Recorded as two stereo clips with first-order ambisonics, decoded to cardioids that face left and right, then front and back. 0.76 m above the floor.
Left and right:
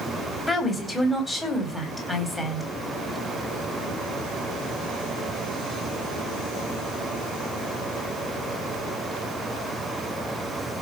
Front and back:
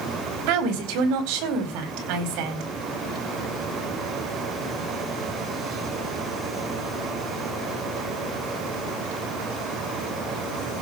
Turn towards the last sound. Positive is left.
turn(degrees=170)